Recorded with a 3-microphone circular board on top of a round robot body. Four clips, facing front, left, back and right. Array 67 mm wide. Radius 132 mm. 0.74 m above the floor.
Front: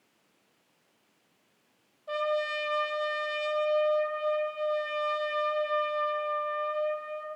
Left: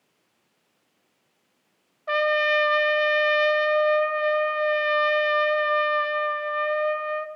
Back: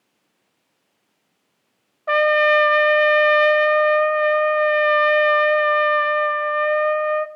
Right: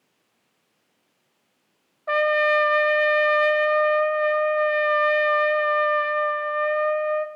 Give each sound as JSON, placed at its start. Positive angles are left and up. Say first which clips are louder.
{"t": 2.1, "sound": "a trumpet", "louder": "right 2 dB, back 14 dB", "azimuth_deg": -165, "distance_m": 1.0}